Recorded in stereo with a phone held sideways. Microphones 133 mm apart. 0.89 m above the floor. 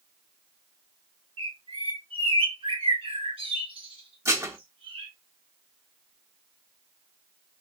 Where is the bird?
45° right (ahead or behind), 1.7 m.